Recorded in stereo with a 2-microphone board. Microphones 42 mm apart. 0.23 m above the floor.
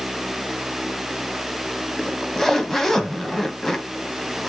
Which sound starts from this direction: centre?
A zipper, at 2.0 s.